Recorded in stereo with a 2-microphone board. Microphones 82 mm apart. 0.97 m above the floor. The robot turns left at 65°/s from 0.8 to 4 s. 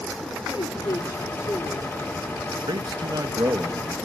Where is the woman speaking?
95° left, 2.5 m; by 1.9 s 20° left, 2.5 m.